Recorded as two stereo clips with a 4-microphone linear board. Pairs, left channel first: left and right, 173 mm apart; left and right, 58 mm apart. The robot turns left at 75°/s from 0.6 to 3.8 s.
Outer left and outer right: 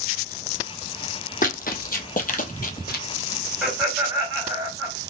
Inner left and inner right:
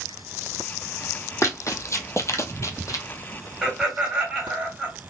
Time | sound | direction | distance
1.4 | running footsteps | 50° left (ahead or behind) | 1.0 m
3.6 | laughter | 10° right (ahead or behind) | 2.5 m